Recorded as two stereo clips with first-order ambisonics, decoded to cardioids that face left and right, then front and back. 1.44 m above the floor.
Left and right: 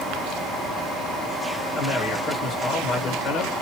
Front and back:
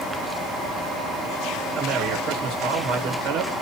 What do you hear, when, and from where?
1.8 s a man speaking: 145° left, 1.3 m